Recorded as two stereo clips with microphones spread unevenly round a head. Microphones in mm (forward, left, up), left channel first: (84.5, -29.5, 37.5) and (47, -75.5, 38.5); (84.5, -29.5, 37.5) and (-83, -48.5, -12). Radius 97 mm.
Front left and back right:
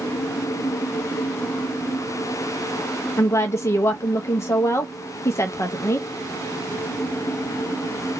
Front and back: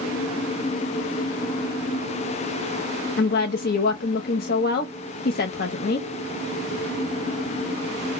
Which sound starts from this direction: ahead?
A woman speaking, at 3.2 s.